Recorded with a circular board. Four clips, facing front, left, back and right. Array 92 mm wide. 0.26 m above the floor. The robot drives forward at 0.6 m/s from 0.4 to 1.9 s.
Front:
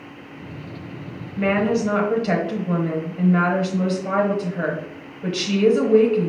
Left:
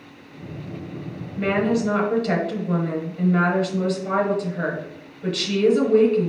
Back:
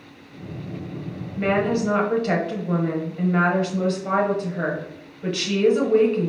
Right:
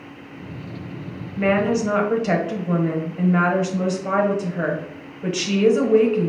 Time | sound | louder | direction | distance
1.4 | a woman speaking | right 2 dB, front 1 dB | 50° right | 1.0 m